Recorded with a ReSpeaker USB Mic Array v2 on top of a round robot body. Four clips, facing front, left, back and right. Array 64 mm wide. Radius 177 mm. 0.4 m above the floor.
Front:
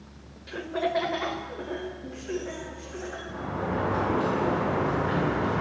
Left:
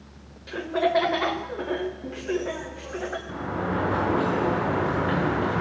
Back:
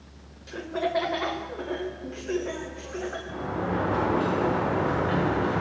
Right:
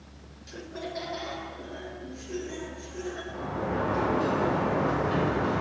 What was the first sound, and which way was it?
Laughter, 75° left.